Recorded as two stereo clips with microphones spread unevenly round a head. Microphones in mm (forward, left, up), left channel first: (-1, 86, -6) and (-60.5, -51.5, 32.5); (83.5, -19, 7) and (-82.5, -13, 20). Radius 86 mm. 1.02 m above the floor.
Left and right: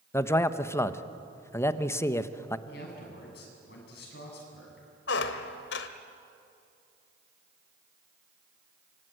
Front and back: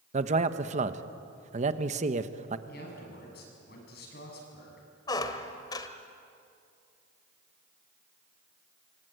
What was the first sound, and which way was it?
A man speaking, 130° left.